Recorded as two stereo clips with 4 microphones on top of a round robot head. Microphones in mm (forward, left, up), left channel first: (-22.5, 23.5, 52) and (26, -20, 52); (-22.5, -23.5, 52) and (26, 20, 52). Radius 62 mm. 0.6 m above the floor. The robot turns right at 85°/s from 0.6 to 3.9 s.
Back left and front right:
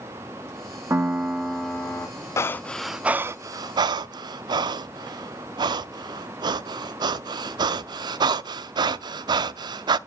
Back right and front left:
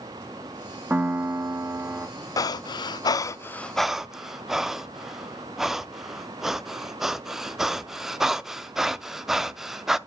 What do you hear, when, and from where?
0.9 s a piano: 15° right, 1.2 m; by 2.1 s 85° left, 1.2 m
2.4 s breathing: 175° right, 0.5 m; by 10.0 s 45° right, 0.5 m